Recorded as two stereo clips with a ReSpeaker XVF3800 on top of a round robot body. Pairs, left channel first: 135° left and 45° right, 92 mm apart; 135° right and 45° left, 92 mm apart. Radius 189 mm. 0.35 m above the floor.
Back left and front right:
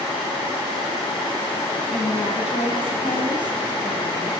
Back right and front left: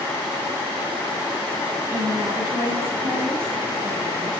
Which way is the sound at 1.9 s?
110° left.